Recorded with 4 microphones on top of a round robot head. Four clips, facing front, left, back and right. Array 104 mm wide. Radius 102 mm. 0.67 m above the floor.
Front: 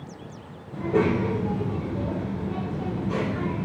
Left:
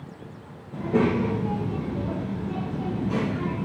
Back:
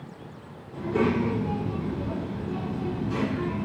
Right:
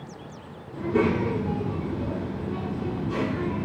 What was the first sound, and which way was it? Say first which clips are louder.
A child speaking: left 1 dB, front 2 dB; 35° left.